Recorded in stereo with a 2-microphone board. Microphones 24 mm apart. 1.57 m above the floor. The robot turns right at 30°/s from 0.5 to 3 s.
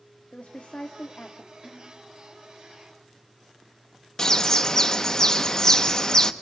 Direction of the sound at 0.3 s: 90° left.